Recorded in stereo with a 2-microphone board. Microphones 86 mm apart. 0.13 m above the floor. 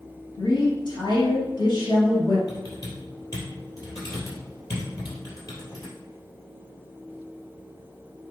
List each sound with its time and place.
0.4 s a woman speaking: 55° left (ahead or behind), 3 m
2.5 s typing on a keyboard: 45° left (ahead or behind), 3.5 m